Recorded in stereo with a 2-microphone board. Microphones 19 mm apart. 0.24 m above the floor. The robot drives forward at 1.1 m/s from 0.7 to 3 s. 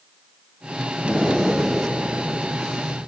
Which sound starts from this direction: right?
Breathing, at 1.0 s.